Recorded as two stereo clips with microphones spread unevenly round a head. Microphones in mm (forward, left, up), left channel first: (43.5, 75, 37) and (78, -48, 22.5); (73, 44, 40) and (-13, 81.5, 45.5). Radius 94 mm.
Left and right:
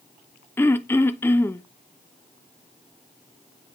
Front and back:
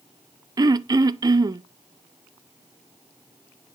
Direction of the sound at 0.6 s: Straight behind.